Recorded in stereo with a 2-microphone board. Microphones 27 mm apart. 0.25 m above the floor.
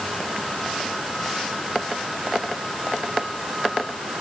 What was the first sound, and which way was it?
Only background noise.